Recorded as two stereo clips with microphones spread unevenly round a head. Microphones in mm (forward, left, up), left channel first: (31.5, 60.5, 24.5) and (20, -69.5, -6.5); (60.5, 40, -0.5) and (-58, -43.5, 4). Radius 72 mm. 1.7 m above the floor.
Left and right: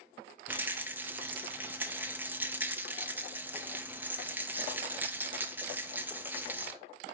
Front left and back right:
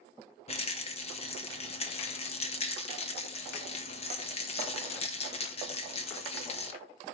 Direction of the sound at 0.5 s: 10° right.